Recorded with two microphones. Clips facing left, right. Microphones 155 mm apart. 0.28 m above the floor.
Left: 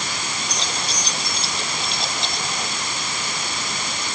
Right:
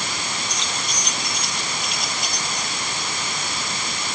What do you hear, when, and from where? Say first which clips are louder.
0.5 s keys jangling: left 1 dB; 35° left (ahead or behind); by 2.7 s 25° left (ahead or behind)